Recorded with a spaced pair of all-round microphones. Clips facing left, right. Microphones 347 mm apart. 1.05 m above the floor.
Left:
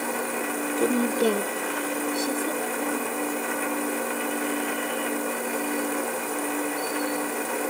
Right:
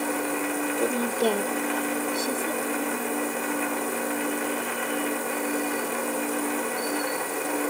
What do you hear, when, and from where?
0.8 s a woman speaking: 25° left (ahead or behind), 0.5 m; by 3.1 s 5° right (ahead or behind), 2.5 m